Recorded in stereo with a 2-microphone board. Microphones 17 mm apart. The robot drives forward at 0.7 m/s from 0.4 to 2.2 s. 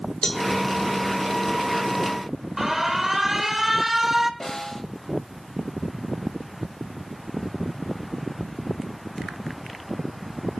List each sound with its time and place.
0.2 s a cowbell: 30° left (ahead or behind), 1.8 m
2.6 s an alarm: 25° right (ahead or behind), 1.4 m
4.4 s a snare drum: 35° left (ahead or behind), 2.5 m